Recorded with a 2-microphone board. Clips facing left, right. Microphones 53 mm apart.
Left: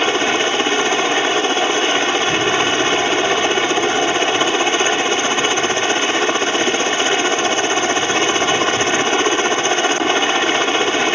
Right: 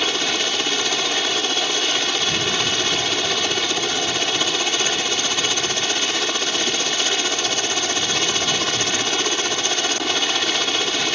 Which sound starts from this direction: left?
A helicopter, at 0.0 s.